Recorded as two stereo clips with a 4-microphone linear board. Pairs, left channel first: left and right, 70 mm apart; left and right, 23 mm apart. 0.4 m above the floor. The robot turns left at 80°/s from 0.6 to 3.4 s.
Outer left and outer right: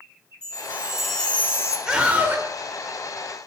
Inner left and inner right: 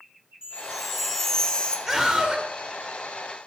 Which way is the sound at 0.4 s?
145° right.